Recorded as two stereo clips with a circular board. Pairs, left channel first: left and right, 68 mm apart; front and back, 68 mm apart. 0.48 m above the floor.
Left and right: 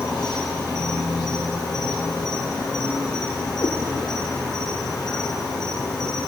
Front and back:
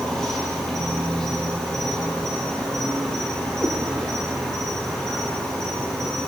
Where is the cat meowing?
90° left, 2 m.